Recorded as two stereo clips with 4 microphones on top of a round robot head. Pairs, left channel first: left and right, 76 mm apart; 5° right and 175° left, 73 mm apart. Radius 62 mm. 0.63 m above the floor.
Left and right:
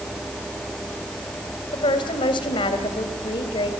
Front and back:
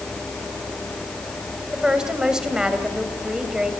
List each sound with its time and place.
1.7 s a woman speaking: 95° left, 3 m